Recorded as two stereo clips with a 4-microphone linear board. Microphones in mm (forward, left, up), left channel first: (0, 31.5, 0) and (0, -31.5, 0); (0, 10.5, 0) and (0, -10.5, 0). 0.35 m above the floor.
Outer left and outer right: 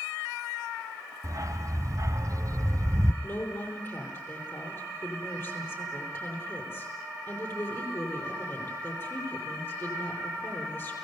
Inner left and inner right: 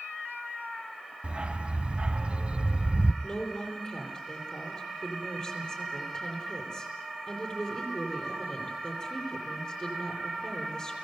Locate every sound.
1.2 s a dog barking: 55° right (ahead or behind), 1.0 m
3.2 s a woman speaking: 35° left (ahead or behind), 9.5 m